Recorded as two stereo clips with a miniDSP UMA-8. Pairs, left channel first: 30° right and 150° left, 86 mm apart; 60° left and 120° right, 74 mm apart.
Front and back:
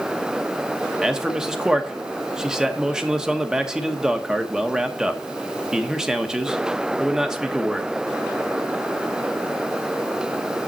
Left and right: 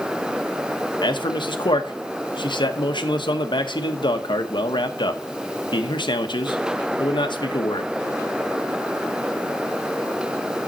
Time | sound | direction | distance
1.0 | a man speaking | 70° left | 1.1 m